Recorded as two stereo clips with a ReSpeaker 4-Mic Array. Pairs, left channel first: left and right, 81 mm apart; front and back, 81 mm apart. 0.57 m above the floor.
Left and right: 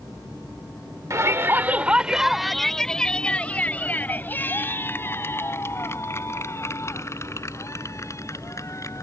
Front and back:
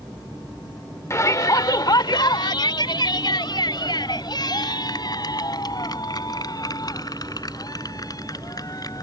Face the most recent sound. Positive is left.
turn(degrees=40)